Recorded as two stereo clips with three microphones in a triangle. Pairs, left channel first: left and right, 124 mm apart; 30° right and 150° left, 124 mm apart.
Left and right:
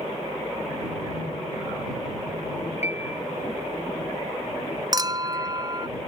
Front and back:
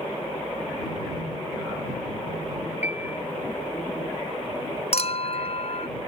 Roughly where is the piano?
Left.